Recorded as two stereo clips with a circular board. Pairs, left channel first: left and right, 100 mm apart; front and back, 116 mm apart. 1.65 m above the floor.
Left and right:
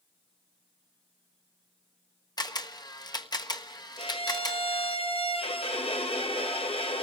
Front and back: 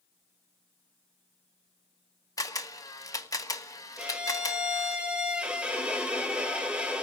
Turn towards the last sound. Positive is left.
turn(degrees=100)